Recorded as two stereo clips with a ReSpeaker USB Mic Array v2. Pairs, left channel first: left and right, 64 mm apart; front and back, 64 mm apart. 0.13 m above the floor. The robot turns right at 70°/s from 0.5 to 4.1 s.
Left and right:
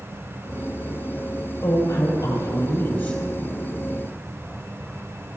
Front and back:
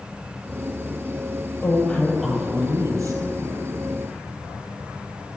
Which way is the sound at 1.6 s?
50° left.